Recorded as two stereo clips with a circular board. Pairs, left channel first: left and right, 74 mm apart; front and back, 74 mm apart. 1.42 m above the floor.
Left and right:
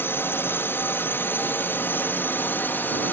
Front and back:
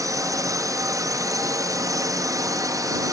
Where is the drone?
145° left; by 3.1 s 150° left.